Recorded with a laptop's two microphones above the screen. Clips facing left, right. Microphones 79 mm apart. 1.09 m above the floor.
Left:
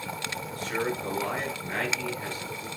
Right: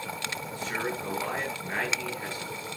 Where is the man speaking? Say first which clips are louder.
Left 3 dB; 15° right (ahead or behind), 8.5 m.